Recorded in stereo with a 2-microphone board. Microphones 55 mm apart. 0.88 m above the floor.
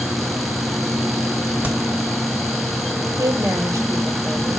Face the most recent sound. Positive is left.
turn(degrees=-65)  # may be behind; listen again after turning